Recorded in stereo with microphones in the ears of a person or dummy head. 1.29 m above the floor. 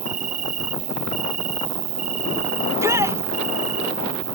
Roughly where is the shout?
Centre.